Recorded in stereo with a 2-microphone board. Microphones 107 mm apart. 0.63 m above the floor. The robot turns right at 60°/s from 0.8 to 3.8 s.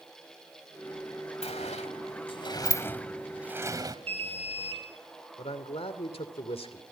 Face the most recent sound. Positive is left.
turn(degrees=65)  # may be behind; listen again after turning